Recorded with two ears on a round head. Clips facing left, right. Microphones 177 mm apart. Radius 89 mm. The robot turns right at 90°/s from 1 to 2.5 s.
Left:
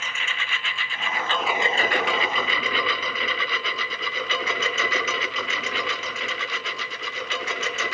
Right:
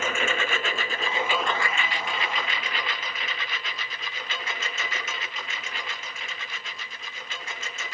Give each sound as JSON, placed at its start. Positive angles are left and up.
{"t": 0.0, "sound": "a lawn mower", "side_deg": -45}